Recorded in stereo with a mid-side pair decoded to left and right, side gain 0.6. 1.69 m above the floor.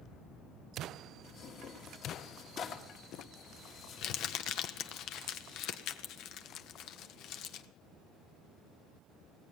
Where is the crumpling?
65° left, 0.9 m.